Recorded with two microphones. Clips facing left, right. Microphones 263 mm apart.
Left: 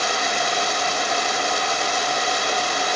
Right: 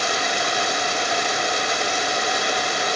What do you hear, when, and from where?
Only background noise.